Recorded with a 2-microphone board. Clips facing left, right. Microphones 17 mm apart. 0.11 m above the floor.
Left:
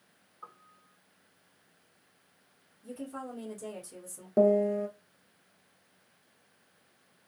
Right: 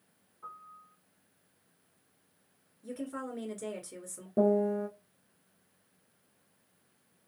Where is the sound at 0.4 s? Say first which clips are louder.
Right 4 dB; 45° left (ahead or behind), 0.8 m.